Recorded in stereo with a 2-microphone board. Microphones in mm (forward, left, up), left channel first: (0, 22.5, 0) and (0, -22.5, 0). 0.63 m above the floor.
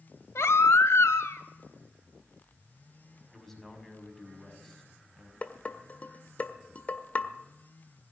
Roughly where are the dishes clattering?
Left.